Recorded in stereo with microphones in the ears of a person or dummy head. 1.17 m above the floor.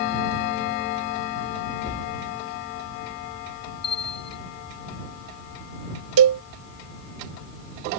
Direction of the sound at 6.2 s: 70° right (ahead or behind).